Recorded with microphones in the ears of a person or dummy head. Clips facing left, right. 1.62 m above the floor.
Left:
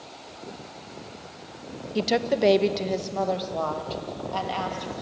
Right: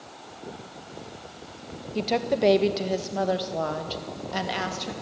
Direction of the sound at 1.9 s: 20° left (ahead or behind).